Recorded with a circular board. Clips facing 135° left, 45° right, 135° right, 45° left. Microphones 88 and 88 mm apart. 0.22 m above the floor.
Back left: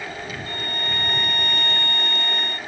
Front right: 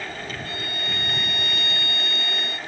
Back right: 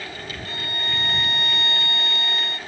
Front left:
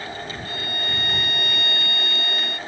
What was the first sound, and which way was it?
A violin, 170° left.